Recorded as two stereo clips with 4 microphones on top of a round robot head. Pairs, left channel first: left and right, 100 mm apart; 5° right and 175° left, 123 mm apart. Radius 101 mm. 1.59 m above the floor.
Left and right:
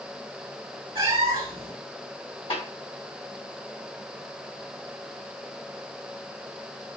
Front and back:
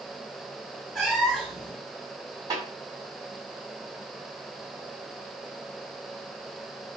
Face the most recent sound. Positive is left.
turn(degrees=120)